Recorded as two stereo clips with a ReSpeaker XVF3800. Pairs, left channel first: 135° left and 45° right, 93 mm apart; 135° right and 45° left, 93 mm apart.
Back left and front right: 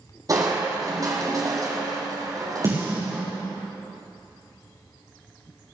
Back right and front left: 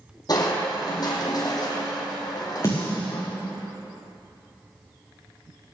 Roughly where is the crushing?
Right.